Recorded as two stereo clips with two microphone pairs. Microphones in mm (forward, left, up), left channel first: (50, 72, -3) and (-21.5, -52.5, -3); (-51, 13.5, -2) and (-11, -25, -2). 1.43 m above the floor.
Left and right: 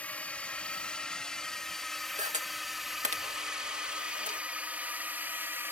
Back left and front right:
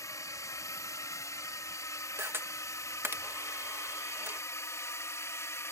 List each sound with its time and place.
0.0 s a drone: 140° left; by 5.7 s 165° left
2.2 s a camera shutter: 85° right